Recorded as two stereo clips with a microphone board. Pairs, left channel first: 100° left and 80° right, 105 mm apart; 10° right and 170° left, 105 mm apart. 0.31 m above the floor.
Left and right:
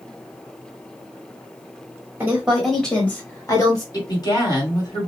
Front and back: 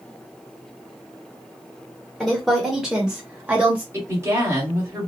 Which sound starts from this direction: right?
A woman speaking, at 2.2 s.